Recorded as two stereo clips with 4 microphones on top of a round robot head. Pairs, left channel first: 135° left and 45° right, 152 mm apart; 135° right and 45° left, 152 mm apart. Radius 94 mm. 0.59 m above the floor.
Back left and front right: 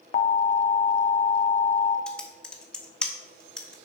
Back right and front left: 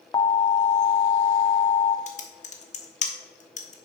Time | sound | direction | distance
0.1 | an alarm | 165° left | 0.6 m
2.1 | typing on a keyboard | 140° right | 1.1 m